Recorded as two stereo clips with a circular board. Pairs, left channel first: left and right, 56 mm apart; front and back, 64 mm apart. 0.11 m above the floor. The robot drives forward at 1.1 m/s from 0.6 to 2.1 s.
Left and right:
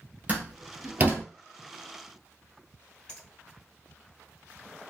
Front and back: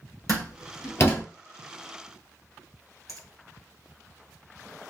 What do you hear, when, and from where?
0.3 s a door slam: 30° right, 1.7 m; by 1.2 s 50° right, 1.2 m
3.1 s a finger snap: 165° left, 2.5 m